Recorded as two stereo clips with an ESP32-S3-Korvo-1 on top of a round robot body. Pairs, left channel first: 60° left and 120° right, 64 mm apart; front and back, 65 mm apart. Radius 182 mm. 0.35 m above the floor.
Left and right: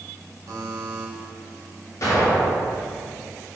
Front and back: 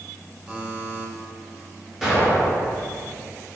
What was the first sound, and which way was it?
A buzzer, 105° right.